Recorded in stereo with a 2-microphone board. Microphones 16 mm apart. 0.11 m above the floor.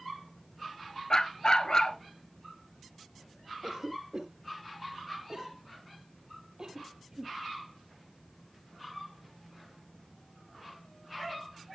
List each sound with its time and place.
1.1 s a dog barking: 50° left (ahead or behind), 0.9 m
3.6 s a cough: 40° right (ahead or behind), 1.4 m